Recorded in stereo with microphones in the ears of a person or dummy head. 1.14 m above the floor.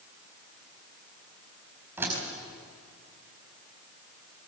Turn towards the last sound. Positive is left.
turn(degrees=-20)  # may be behind; listen again after turning